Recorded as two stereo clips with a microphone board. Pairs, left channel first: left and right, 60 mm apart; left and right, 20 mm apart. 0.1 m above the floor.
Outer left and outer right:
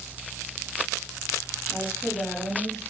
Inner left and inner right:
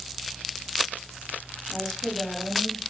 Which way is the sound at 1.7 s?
30° left (ahead or behind).